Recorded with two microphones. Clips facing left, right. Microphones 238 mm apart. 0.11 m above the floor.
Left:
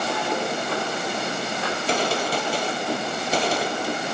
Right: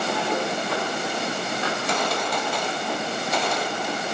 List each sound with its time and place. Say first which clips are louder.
1.7 s a gunshot: left 5 dB; 35° left (ahead or behind), 1.4 m